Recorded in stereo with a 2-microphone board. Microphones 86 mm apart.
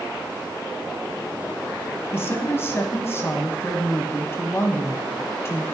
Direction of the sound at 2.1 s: 30° left (ahead or behind).